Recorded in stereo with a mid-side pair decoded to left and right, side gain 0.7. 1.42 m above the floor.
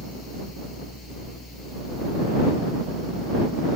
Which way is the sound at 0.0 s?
15° left.